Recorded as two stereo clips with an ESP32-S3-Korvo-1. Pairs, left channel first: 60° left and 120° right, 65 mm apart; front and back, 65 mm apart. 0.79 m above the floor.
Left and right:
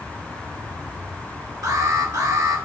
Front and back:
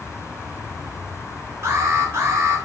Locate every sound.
1.6 s an alarm: 135° right, 3.5 m